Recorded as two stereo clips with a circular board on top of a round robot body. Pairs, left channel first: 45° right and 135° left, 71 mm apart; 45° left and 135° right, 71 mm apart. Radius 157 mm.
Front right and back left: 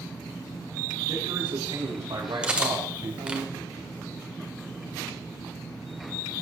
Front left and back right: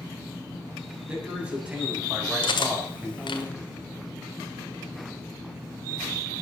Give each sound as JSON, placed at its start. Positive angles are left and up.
{"t": 1.1, "sound": "a man speaking", "azimuth_deg": 150, "distance_m": 8.0}
{"t": 2.4, "sound": "cutlery clinking", "azimuth_deg": 60, "distance_m": 1.7}